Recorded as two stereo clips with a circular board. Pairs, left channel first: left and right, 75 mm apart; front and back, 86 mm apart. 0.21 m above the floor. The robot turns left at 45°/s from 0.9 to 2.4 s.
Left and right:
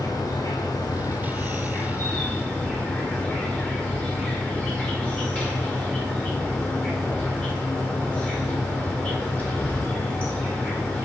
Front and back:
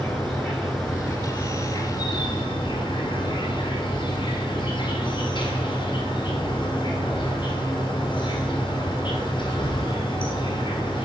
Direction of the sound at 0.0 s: 85° left.